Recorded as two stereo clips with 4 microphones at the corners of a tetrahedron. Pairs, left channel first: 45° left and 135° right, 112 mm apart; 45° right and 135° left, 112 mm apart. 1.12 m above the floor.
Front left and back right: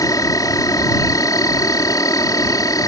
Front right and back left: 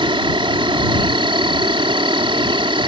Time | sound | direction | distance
0.0 | an insect | 100° left | ?